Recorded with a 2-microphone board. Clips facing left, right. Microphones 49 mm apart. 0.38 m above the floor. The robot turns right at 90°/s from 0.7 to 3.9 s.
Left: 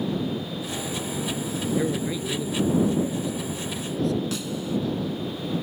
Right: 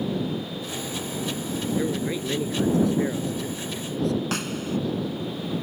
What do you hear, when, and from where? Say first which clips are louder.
1.8 s a man speaking: even; 165° left; by 4.2 s straight ahead
4.3 s a snare drum: even; 65° right (ahead or behind)